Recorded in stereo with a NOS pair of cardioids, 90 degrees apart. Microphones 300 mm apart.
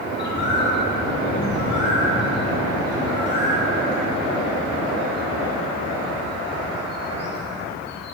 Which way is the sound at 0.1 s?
35° left.